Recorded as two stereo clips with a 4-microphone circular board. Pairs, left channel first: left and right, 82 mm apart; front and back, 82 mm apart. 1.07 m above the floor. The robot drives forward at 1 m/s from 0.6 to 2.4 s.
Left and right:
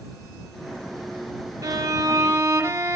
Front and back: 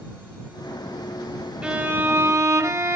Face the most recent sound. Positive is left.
turn(degrees=-140)